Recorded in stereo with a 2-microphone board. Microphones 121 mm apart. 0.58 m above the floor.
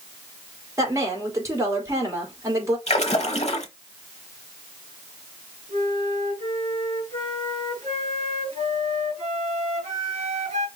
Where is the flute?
65° right (ahead or behind), 2.5 m.